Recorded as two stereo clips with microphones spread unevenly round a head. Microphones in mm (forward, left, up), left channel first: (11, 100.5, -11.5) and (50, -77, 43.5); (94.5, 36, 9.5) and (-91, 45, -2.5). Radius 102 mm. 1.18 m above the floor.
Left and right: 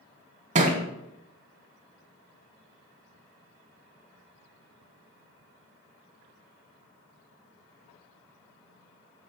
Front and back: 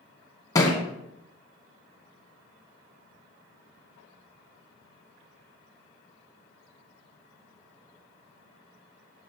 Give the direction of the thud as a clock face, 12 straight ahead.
2 o'clock.